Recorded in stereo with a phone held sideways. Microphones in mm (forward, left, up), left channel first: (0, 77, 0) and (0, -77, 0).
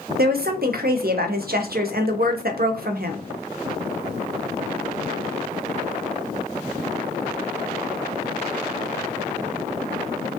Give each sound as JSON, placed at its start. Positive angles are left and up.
{"t": 0.2, "sound": "a woman speaking", "side_deg": -70, "distance_m": 0.5}